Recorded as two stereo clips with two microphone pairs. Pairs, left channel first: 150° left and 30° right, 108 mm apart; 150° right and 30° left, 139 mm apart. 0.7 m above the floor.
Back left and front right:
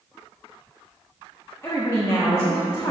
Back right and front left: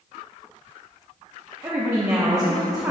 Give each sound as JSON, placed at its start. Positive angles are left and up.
{"t": 1.6, "sound": "a woman speaking", "azimuth_deg": 90, "distance_m": 0.9}